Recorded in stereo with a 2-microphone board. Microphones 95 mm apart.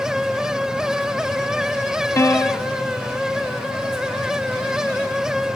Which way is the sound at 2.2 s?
30° left (ahead or behind).